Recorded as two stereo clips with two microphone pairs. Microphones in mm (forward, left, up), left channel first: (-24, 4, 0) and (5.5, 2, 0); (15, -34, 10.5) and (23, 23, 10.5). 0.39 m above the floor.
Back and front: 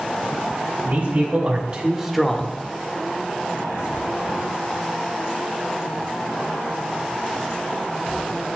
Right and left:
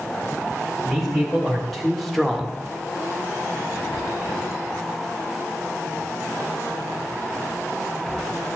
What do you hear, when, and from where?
0.8 s a man speaking: 10° right, 2 m; by 2.6 s 175° left, 1.0 m